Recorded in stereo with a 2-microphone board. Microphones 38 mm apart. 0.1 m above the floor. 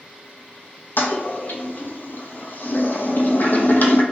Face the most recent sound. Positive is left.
turn(degrees=60)  # may be behind; listen again after turning